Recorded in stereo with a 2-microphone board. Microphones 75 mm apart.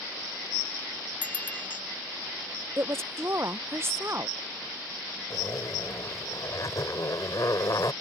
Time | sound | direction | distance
1.2 | a bicycle bell | 25° left (ahead or behind) | ?
2.8 | a woman speaking | 35° right (ahead or behind) | ?
5.3 | a zipper | 55° left (ahead or behind) | ?